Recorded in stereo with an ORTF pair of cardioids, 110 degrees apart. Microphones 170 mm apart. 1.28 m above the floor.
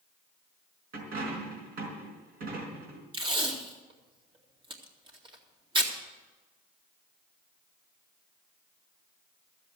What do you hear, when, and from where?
0.9 s a dropped coin: 65° right, 4.5 m
3.1 s tape being pulled: 30° right, 2 m